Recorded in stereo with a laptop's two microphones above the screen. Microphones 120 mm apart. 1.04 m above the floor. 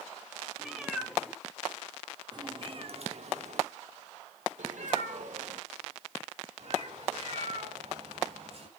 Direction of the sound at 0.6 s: Centre (ahead or behind).